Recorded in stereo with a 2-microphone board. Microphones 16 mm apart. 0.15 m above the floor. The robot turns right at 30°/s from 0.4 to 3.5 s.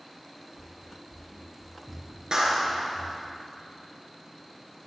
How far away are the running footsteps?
About 0.7 m.